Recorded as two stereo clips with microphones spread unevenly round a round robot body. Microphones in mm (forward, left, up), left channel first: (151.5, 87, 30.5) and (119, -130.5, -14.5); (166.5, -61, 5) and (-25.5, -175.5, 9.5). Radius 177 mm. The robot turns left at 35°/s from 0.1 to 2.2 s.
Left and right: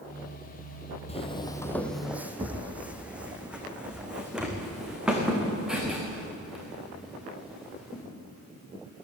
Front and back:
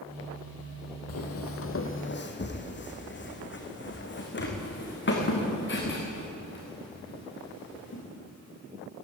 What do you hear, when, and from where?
1.1 s footsteps: 25° left, 1.9 m; by 8.0 s 10° right, 8 m